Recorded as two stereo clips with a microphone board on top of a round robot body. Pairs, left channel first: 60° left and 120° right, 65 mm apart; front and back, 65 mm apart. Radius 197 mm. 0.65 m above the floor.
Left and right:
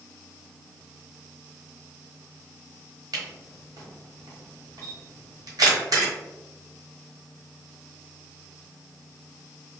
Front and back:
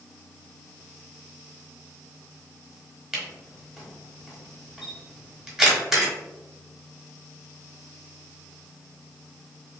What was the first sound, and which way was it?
A camera shutter, 95° right.